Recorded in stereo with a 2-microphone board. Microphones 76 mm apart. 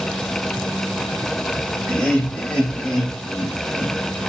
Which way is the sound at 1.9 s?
15° left (ahead or behind).